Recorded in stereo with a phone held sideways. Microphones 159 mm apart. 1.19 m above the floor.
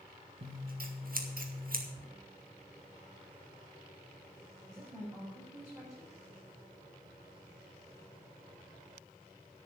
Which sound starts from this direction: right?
Scissors, at 0.4 s.